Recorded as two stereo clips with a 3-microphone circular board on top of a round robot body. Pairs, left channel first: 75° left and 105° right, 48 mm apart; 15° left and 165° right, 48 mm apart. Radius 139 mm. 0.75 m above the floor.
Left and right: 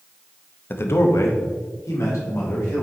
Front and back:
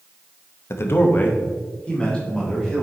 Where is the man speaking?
35° left, 1.0 m; by 2.8 s 95° left, 3.5 m.